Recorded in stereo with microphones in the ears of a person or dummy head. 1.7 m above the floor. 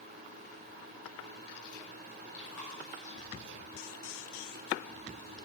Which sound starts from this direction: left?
Chewing, at 2.3 s.